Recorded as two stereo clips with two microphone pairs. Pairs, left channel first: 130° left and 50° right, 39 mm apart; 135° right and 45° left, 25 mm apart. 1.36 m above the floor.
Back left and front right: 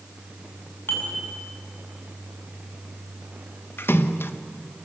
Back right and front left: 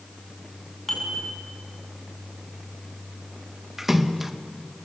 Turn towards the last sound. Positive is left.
turn(degrees=125)